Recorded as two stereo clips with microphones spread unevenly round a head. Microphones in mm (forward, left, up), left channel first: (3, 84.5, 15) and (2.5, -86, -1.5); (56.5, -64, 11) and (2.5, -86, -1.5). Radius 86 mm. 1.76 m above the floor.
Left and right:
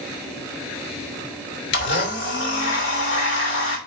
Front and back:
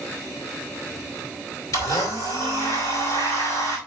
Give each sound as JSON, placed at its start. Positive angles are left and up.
{"t": 1.7, "sound": "a blender", "azimuth_deg": 70, "distance_m": 2.5}